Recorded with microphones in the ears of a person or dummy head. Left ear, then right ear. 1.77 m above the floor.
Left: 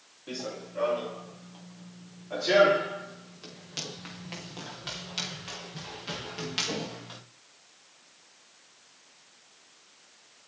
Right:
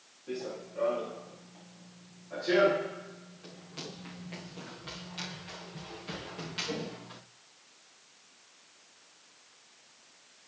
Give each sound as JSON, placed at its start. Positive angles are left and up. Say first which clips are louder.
{"t": 0.3, "sound": "running footsteps", "louder": "left 1 dB", "side_deg": 60, "distance_m": 6.5}